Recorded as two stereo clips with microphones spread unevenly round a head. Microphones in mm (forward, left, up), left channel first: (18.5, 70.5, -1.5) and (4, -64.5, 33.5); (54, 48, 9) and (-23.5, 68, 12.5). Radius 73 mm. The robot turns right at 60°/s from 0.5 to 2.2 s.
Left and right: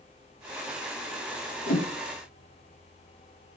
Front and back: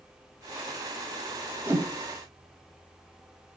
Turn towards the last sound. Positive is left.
turn(degrees=130)